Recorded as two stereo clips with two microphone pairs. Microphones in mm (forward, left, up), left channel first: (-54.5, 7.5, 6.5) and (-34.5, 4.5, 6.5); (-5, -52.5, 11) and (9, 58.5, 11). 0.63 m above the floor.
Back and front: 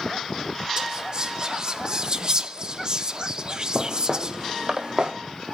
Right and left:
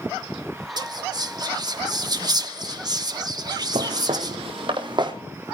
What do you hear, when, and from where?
0.8 s whispering: 45° left, 0.9 m
3.8 s footsteps: 85° left, 1.3 m; by 5.1 s 35° left, 2 m